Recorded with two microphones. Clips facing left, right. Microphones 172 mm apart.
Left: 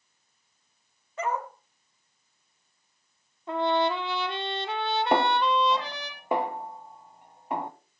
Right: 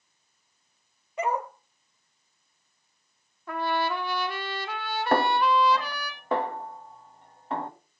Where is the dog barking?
15° right (ahead or behind), 2.5 m.